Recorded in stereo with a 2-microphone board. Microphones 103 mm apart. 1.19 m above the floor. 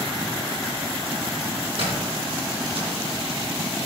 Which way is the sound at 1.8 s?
65° right (ahead or behind).